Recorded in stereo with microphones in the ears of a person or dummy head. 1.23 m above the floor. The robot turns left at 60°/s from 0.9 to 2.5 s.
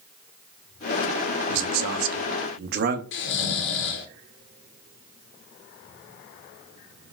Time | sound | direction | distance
1.5 | a man speaking | 65° right | 0.6 m
3.1 | snoring | 60° left (ahead or behind) | 0.6 m